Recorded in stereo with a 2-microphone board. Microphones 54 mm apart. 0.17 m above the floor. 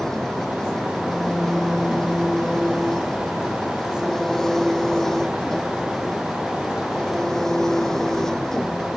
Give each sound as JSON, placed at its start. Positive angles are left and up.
{"t": 0.0, "sound": "an engine running", "side_deg": 5}